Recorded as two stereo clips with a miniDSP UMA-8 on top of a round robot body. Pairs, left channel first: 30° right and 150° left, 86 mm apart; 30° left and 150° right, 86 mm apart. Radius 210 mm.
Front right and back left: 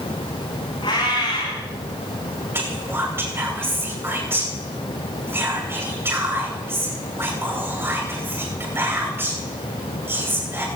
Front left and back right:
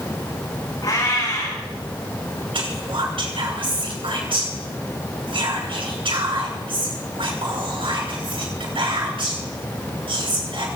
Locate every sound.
0.8 s a cat meowing: 10° right, 9.5 m
2.5 s whispering: 145° right, 9 m